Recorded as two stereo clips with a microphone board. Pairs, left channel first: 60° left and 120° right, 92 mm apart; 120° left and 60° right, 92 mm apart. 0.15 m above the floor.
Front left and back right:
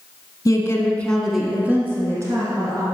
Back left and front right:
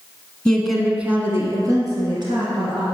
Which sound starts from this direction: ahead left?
A woman speaking, at 0.5 s.